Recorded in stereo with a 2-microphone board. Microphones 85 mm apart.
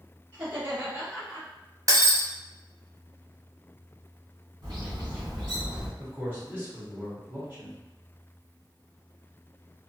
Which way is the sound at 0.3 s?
25° right (ahead or behind).